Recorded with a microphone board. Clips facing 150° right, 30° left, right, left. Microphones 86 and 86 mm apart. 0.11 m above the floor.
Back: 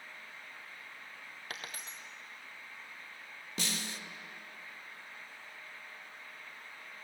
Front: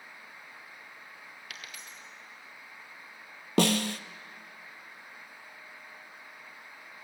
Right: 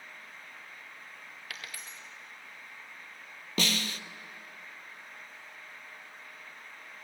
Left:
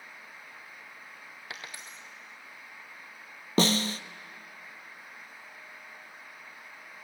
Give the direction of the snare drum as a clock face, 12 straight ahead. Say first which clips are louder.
Front 15 dB, left 7 dB; 11 o'clock.